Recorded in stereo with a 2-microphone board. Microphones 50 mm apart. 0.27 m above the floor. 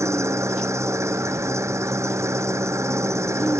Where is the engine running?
85° right.